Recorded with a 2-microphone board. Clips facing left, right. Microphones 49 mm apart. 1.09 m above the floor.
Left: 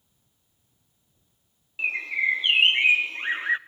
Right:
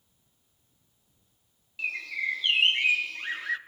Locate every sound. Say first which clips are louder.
1.8 s a bird: left 6 dB; 30° left (ahead or behind), 0.6 m